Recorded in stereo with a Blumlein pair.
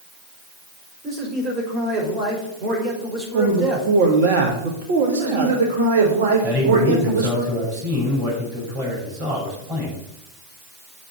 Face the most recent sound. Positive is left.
turn(degrees=-30)